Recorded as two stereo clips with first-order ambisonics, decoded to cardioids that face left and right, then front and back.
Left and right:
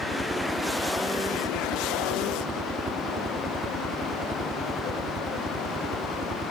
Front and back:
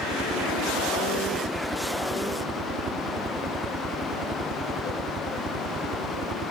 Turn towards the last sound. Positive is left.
turn(degrees=-150)